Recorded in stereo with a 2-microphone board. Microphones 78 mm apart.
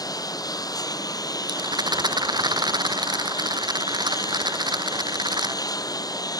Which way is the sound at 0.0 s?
55° left (ahead or behind).